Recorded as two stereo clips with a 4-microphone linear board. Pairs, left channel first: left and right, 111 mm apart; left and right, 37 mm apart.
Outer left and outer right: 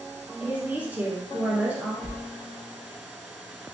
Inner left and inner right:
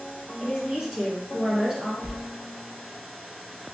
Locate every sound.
0.4 s a woman speaking: 15° right (ahead or behind), 1.2 m
2.0 s a sliding door: 60° right (ahead or behind), 2.5 m